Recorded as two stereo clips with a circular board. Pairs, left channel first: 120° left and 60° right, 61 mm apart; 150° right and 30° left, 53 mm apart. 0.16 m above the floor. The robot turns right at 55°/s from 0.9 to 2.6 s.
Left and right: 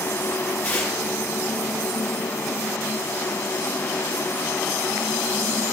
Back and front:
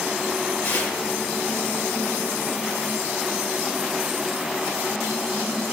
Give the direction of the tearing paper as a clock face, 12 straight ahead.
6 o'clock.